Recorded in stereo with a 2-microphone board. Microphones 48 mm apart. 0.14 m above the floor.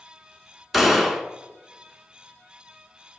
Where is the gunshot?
5° right (ahead or behind), 0.5 m.